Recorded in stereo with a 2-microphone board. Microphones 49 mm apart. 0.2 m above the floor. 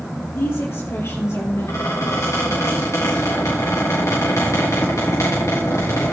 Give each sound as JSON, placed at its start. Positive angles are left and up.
{"t": 0.3, "sound": "a woman speaking", "side_deg": 55, "distance_m": 4.5}
{"t": 1.7, "sound": "a squeak", "side_deg": 80, "distance_m": 6.0}